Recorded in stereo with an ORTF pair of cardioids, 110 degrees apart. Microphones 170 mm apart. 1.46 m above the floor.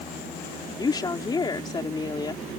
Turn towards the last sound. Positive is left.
turn(degrees=25)